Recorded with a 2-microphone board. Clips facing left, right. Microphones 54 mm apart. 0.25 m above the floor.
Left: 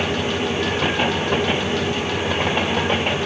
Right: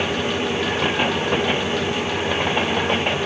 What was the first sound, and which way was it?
Only background noise.